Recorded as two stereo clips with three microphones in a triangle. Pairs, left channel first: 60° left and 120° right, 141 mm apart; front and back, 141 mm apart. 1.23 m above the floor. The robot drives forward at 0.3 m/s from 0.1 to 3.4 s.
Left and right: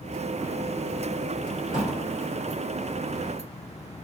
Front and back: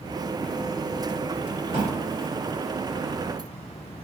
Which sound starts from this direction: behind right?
A drawer, at 1.7 s.